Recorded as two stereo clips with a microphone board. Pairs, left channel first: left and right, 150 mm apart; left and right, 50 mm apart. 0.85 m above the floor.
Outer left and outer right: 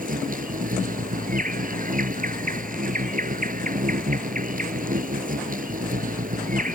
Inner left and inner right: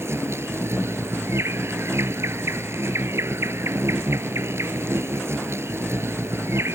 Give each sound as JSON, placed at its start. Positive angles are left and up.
{"t": 0.0, "sound": "an insect", "side_deg": -70}